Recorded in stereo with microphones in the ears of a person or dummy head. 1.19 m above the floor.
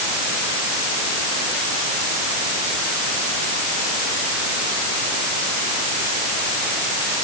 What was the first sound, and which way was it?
Only background noise.